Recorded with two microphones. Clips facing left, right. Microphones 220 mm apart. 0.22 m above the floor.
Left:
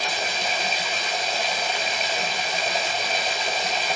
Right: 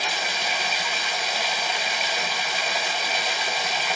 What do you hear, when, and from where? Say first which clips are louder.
0.0 s running water: left 2 dB; 35° left (ahead or behind), 0.9 m